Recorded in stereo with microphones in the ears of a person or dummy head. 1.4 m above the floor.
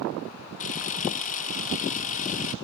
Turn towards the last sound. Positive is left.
turn(degrees=40)  # may be behind; listen again after turning